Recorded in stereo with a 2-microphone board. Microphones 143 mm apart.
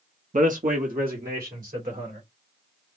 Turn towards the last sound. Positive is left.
turn(degrees=-80)